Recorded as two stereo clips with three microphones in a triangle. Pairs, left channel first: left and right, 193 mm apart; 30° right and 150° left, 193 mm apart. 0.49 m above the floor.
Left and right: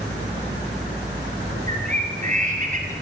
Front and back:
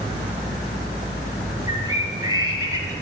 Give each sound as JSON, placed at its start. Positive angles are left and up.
{"t": 1.7, "sound": "a bird", "azimuth_deg": -140, "distance_m": 5.0}